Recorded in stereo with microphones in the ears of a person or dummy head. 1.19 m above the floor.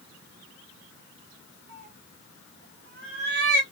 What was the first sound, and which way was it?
A cat meowing, 60° right (ahead or behind).